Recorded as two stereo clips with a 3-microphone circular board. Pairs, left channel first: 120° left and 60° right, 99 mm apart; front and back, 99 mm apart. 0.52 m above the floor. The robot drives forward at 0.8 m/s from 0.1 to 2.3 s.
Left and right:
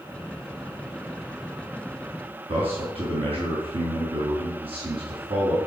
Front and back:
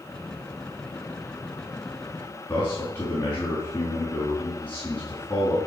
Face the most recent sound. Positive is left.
turn(degrees=-75)